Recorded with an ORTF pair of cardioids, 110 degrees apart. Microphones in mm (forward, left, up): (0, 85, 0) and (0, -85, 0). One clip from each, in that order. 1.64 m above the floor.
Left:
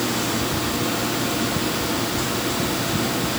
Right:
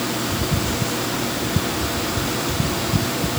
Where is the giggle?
I don't hear a giggle.